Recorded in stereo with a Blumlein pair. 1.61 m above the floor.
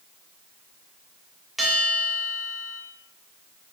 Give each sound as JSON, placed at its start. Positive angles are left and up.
{"t": 1.6, "sound": "a bell", "azimuth_deg": -5, "distance_m": 1.7}